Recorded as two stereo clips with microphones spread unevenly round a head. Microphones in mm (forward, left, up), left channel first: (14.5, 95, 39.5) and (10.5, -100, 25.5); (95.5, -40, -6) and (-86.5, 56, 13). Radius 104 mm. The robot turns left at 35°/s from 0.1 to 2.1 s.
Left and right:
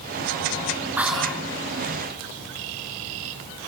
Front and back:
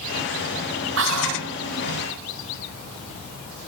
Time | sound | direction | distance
1.0 | whispering | 175° right | 1.1 m